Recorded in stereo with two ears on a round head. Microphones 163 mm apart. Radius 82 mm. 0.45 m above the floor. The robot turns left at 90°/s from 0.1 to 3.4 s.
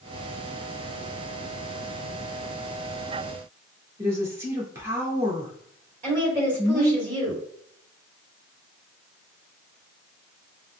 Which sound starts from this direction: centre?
A woman speaking, at 4.0 s.